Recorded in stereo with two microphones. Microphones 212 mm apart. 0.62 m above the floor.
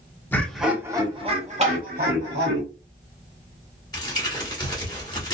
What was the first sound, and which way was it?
Laughter, 10° left (ahead or behind).